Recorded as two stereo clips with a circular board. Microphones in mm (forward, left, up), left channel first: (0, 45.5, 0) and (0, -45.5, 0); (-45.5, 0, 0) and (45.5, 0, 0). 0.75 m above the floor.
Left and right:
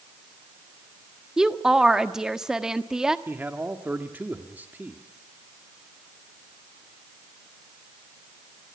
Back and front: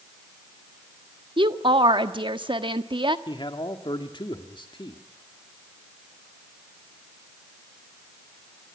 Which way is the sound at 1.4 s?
5° right.